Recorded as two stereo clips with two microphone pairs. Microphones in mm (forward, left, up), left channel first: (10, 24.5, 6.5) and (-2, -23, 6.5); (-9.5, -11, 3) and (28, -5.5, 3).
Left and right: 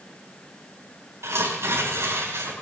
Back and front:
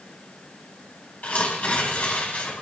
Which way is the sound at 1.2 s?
125° right.